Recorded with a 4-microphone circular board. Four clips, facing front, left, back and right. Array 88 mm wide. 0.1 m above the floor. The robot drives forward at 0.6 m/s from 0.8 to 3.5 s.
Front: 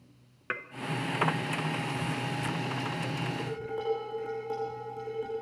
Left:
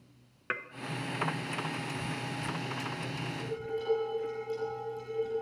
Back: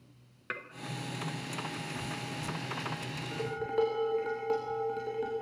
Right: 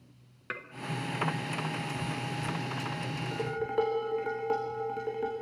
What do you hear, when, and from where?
0.5 s dishes clattering: 45° left, 0.9 m
3.3 s dishes clattering: 110° right, 6 m